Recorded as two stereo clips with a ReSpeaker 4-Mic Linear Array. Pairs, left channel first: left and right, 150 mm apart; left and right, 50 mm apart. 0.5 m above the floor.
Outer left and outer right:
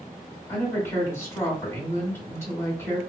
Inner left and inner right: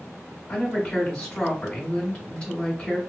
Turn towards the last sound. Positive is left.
turn(degrees=15)  # may be behind; listen again after turning